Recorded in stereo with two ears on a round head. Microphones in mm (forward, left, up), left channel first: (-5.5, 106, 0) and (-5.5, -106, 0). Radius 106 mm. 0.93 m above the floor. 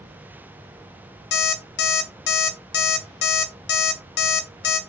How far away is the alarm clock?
About 0.6 m.